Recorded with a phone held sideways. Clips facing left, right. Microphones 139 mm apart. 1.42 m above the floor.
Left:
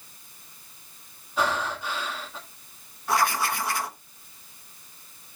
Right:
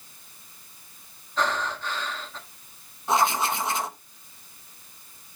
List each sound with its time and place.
1.4 s breathing: 10° left (ahead or behind), 1.6 m
3.1 s writing: 20° right (ahead or behind), 0.9 m